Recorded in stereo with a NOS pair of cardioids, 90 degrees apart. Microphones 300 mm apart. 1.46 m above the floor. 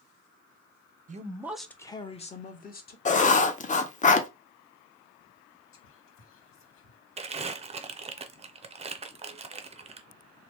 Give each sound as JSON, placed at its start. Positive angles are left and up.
{"t": 1.1, "sound": "a man speaking", "azimuth_deg": -30, "distance_m": 0.5}
{"t": 3.0, "sound": "writing", "azimuth_deg": 25, "distance_m": 0.6}
{"t": 5.7, "sound": "whispering", "azimuth_deg": 45, "distance_m": 1.1}
{"t": 7.2, "sound": "crumpling", "azimuth_deg": -20, "distance_m": 0.5}